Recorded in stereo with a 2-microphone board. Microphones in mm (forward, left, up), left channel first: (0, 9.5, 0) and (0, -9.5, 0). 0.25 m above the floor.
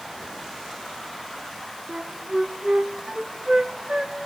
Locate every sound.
1.9 s a flute: 50° right (ahead or behind), 1.6 m